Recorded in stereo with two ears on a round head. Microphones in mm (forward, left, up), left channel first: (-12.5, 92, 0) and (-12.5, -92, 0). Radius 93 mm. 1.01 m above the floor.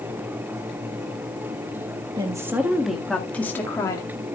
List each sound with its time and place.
2.2 s a woman speaking: 20° right (ahead or behind), 1.4 m; by 4.1 s 15° left (ahead or behind), 2 m